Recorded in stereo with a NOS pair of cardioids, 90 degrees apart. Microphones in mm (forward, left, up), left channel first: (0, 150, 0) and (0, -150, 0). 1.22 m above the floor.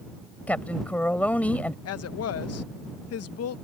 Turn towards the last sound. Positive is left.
turn(degrees=55)